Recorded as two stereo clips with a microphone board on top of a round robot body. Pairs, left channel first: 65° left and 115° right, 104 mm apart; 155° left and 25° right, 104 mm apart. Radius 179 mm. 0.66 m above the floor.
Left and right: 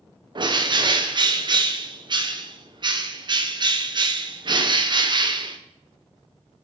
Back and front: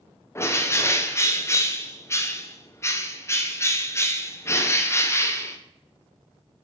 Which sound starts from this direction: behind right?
A bird, at 0.3 s.